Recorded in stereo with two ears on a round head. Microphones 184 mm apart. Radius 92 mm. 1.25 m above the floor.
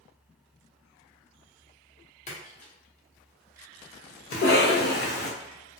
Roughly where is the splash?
Left.